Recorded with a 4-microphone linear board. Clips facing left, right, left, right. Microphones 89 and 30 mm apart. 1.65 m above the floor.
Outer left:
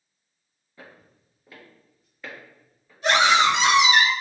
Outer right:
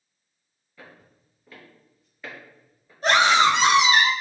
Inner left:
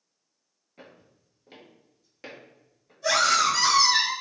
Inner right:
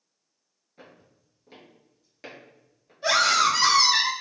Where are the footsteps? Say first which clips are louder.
Even, inner left 1 dB; 25° left (ahead or behind), 1.8 m; by 2.9 s 15° right (ahead or behind), 1.8 m.